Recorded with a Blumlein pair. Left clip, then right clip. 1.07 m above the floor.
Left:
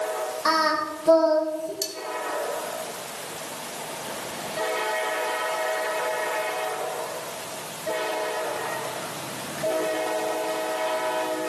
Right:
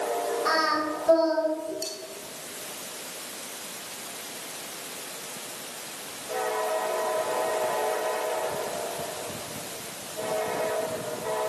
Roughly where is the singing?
Ahead left.